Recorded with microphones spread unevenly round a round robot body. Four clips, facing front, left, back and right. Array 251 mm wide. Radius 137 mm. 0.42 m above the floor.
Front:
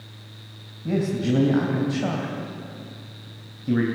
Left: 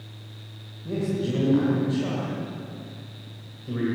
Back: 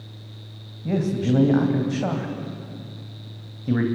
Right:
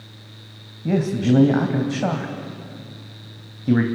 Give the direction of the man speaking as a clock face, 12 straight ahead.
3 o'clock.